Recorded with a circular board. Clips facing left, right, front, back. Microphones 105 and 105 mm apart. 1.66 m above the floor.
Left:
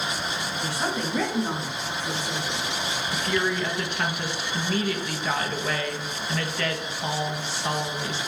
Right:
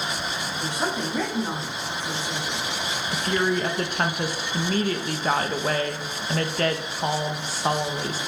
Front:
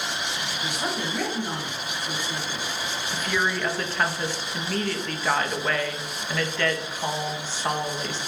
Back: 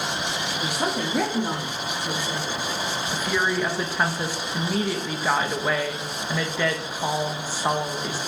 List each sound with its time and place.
0.6 s a woman speaking: 155° right, 1.3 m; by 2.6 s 155° left, 1.6 m
3.1 s a woman speaking: 110° right, 0.5 m